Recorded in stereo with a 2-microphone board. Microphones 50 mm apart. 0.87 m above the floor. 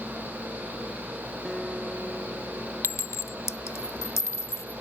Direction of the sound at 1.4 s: 10° right (ahead or behind).